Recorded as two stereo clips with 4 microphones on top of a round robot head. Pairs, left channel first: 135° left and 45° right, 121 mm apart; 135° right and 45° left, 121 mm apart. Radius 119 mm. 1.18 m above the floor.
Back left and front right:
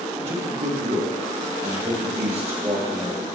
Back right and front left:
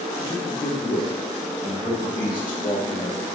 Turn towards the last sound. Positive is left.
turn(degrees=-80)